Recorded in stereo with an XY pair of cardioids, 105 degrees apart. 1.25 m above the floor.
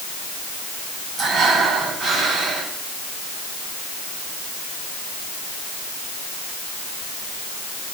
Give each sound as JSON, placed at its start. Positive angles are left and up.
{"t": 1.2, "sound": "breathing", "azimuth_deg": -60, "distance_m": 9.5}